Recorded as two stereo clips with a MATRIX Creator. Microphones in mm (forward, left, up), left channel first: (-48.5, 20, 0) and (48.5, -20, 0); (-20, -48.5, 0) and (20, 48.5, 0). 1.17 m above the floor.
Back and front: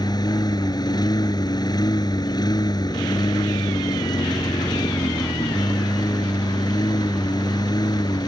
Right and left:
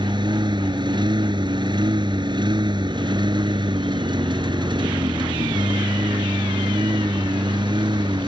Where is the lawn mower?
110° left.